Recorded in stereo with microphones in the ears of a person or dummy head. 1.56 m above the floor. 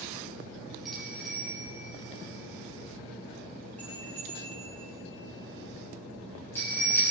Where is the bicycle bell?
Centre (ahead or behind), 3.5 m; by 7.0 s 15° left (ahead or behind), 7 m.